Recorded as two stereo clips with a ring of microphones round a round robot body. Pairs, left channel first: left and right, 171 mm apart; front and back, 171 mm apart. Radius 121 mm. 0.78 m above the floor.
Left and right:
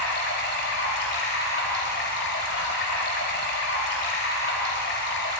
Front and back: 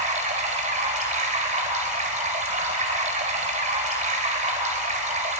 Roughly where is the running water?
Behind left.